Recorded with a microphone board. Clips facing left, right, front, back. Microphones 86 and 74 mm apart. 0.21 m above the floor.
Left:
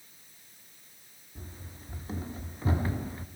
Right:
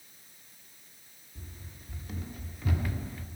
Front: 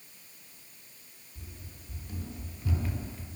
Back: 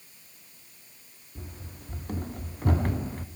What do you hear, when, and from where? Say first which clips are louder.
1.4 s running footsteps: left 3 dB, back 6 dB; 150° left, 2.5 m